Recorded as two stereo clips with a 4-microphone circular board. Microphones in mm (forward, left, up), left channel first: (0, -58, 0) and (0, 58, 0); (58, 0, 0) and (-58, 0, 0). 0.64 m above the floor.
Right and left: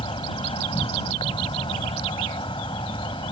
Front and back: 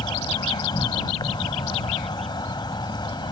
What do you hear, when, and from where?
0.0 s an insect: 50° right